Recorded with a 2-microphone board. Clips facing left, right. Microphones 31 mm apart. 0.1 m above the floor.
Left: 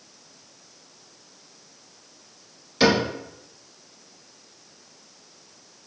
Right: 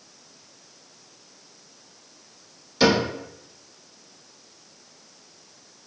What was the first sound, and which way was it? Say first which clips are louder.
A cupboard door: even; 20° left (ahead or behind).